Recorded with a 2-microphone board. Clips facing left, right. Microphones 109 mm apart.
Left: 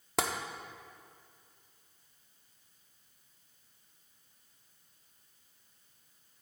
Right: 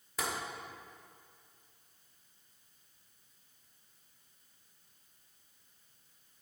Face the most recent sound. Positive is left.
turn(degrees=75)  # may be behind; listen again after turning